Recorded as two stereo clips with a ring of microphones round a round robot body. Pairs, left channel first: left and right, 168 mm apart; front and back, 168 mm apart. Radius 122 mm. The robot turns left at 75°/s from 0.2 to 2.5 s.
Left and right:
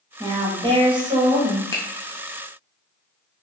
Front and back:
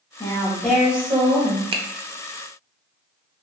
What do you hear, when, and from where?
0.2 s a woman speaking: 45° right, 0.8 m; by 1.6 s 150° right, 0.8 m
1.7 s a finger snap: 150° left, 0.6 m; by 1.8 s 140° left, 0.6 m